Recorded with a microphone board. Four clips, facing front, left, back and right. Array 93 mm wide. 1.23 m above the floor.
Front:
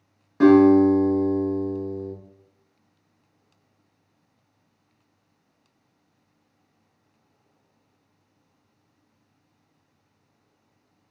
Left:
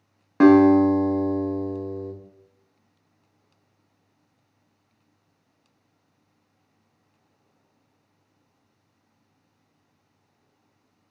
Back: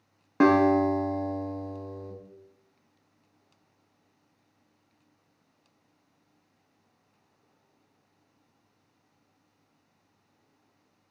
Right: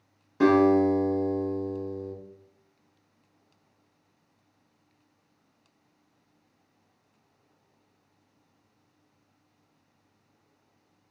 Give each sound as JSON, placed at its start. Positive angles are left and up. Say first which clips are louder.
{"t": 0.4, "sound": "a guitar", "louder": "left 6 dB, front 7 dB", "azimuth_deg": 125, "distance_m": 0.8}